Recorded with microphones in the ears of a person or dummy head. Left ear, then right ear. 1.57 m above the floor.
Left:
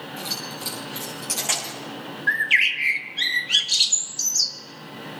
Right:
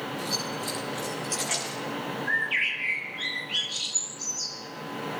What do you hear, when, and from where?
0.2 s keys jangling: 40° left (ahead or behind), 6.5 m; by 1.8 s 60° left (ahead or behind), 7 m
2.3 s a bird: 80° left, 1.6 m